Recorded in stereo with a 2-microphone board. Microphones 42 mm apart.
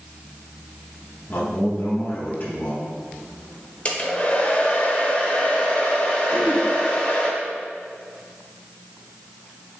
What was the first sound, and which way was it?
A man speaking, 40° left (ahead or behind).